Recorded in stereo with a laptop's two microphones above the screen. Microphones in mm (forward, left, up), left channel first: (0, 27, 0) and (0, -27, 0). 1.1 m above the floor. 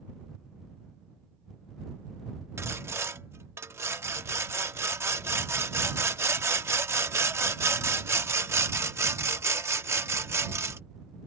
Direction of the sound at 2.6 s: 50° right (ahead or behind).